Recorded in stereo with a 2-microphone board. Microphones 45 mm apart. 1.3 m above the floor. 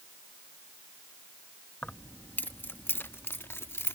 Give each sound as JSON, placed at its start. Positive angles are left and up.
{"t": 1.8, "sound": "keys jangling", "side_deg": 25}